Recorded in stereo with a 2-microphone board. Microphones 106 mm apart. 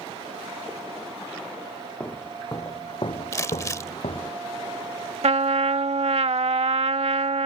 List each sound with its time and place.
2.0 s footsteps: 15° left (ahead or behind); by 4.3 s 50° left (ahead or behind)
3.3 s crumpling: 30° left (ahead or behind)
5.2 s a trumpet: 70° right (ahead or behind)